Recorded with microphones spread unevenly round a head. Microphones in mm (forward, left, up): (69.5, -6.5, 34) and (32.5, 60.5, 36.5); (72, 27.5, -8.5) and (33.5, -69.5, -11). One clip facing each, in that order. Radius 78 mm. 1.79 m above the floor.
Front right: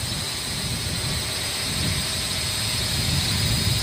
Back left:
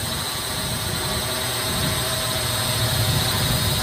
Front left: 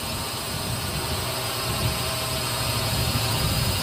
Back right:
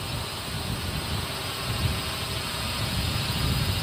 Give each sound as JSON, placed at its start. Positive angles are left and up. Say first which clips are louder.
{"t": 0.0, "sound": "a drone", "louder": "back left 4 dB, front left 3 dB", "azimuth_deg": 105}